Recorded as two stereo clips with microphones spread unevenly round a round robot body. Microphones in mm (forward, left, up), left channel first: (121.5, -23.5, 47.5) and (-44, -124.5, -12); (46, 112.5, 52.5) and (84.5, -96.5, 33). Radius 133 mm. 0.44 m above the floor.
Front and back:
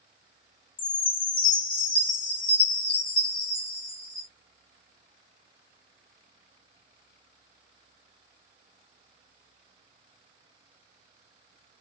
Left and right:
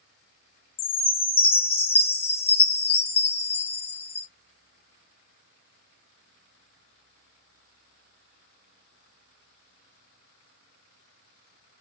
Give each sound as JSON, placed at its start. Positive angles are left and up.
{"t": 0.8, "sound": "a chime", "azimuth_deg": 105, "distance_m": 1.1}